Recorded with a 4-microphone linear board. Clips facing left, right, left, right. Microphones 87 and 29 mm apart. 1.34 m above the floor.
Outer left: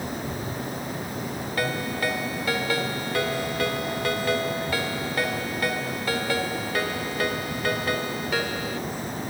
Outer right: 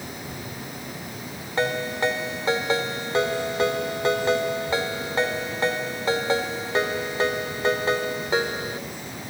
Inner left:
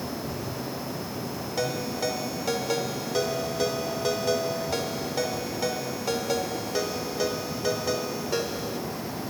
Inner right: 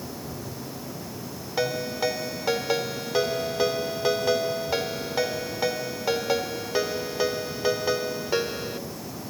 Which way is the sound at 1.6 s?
20° right (ahead or behind).